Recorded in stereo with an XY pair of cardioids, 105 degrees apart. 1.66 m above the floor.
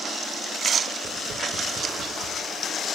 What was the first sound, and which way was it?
Tapping, 65° right.